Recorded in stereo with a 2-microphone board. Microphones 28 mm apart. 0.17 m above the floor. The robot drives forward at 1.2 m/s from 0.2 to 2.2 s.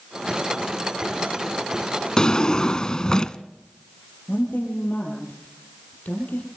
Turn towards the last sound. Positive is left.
turn(degrees=70)  # may be behind; listen again after turning